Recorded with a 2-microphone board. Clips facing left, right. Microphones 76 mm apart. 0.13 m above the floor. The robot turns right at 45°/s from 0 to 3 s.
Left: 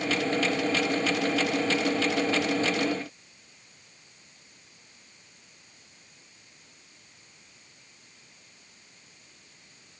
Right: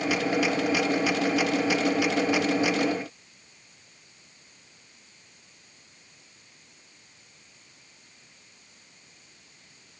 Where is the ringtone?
I don't hear a ringtone.